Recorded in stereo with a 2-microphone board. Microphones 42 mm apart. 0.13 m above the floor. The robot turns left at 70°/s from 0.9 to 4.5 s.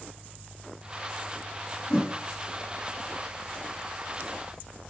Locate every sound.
1.9 s a whoosh: 25° left (ahead or behind), 1.2 m; by 2.1 s 15° left (ahead or behind), 1.2 m